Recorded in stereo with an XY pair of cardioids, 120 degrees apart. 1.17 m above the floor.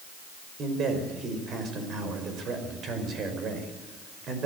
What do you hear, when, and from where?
0.6 s a man speaking: 50° right, 5.5 m